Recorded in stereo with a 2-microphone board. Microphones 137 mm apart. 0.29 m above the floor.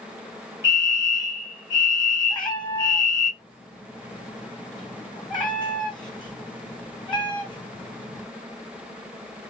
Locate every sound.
0.6 s a fire alarm: 20° right (ahead or behind), 2.0 m
2.3 s a cat meowing: 35° left (ahead or behind), 1.7 m